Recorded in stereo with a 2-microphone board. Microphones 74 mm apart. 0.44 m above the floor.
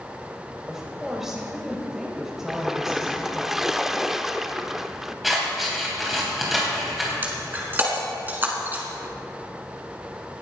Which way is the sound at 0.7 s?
5° right (ahead or behind).